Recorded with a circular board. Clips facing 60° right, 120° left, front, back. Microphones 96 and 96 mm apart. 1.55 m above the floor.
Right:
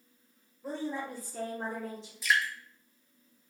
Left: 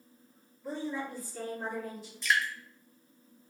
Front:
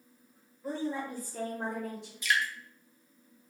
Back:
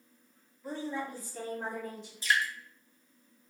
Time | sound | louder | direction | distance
0.6 | a woman speaking | even, front 2 dB | 60° right | 1.0 m
2.2 | dripping | right 1 dB, back 1 dB | 145° right | 0.5 m